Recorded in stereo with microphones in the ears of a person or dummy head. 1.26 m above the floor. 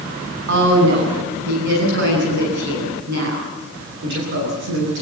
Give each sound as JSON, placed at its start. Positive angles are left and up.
{"t": 0.5, "sound": "a woman speaking", "side_deg": -70, "distance_m": 9.5}